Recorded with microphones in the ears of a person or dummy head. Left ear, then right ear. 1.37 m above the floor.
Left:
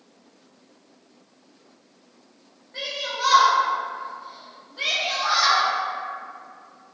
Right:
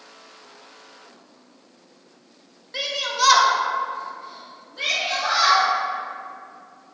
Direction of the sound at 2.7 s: 75° right (ahead or behind).